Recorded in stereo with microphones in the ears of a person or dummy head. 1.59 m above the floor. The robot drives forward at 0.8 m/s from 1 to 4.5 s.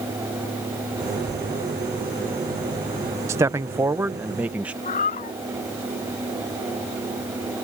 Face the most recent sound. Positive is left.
turn(degrees=35)  # may be behind; listen again after turning